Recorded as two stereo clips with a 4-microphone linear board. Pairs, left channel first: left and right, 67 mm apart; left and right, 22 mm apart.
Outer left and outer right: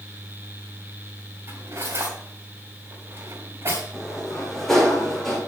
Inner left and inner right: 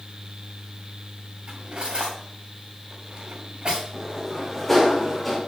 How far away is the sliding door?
About 5 m.